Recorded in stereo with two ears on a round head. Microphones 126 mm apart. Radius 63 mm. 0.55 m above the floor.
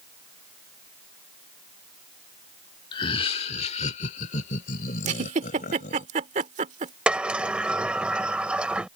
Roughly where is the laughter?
Left.